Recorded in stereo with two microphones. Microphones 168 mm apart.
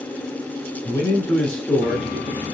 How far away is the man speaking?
About 1.5 m.